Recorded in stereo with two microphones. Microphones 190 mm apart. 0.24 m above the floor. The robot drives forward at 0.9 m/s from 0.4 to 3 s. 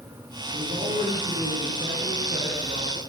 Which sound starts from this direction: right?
A man speaking, at 0.5 s.